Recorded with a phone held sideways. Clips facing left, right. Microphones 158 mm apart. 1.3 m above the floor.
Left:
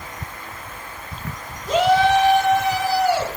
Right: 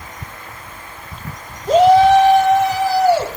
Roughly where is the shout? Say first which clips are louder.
Right 7 dB; right.